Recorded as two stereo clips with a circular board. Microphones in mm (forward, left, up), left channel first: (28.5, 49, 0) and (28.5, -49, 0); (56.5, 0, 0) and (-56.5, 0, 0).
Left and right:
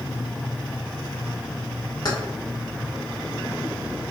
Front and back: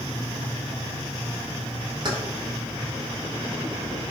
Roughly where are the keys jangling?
Behind left.